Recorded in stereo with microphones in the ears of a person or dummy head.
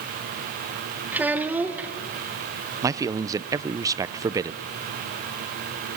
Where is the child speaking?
10° right (ahead or behind), 1.0 m.